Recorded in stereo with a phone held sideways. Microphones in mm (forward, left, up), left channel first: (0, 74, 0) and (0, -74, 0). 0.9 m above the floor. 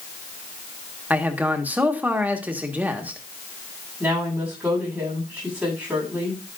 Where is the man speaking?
10° right (ahead or behind), 1.5 m.